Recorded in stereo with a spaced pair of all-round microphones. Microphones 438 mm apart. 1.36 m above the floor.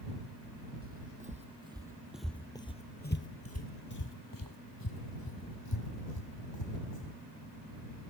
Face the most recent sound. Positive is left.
turn(degrees=55)  # may be behind; listen again after turning